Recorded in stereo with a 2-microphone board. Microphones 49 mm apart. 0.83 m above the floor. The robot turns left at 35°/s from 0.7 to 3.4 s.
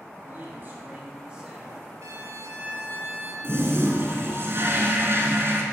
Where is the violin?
95° right, 1.8 m; by 3.3 s 140° right, 1.8 m.